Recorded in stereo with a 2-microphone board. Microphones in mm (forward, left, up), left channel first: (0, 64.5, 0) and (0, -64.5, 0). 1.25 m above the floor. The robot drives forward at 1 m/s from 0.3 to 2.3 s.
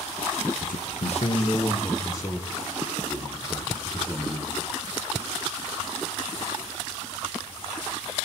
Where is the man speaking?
80° left, 0.7 m; by 4.6 s 25° left (ahead or behind), 1.9 m.